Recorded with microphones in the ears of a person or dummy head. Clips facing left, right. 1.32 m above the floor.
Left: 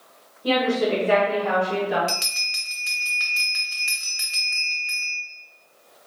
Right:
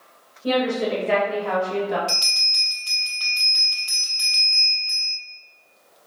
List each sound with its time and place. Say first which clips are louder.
0.4 s a woman speaking: even; 10° right (ahead or behind), 1.3 m; by 2.0 s 10° left (ahead or behind), 2.5 m
2.1 s a bell: left 2 dB; 25° left (ahead or behind), 0.5 m